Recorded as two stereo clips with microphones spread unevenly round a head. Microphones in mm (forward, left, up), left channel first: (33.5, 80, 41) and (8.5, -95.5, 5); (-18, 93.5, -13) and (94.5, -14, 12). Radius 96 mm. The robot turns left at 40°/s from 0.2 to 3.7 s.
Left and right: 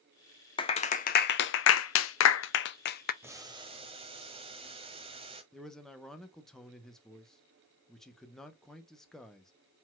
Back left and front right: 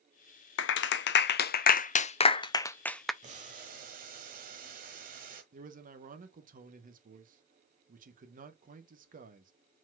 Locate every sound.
0.6 s a clap: 145° left, 0.5 m; by 3.1 s 45° left, 0.5 m
3.2 s boiling: 15° right, 1.5 m; by 5.4 s 35° right, 1.5 m
5.5 s a man speaking: 10° right, 1.0 m